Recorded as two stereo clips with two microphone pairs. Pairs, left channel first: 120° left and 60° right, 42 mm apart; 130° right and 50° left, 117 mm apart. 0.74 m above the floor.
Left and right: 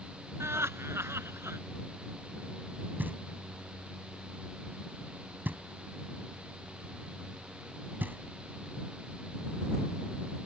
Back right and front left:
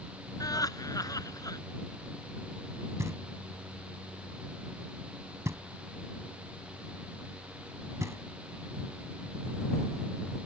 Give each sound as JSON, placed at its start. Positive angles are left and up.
{"t": 0.4, "sound": "laughter", "azimuth_deg": -70}
{"t": 3.0, "sound": "knocking", "azimuth_deg": -15}